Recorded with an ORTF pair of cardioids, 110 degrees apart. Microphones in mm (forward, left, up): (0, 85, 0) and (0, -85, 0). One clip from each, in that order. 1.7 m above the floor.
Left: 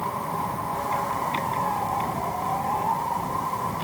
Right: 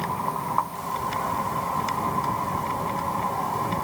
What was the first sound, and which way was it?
Only background noise.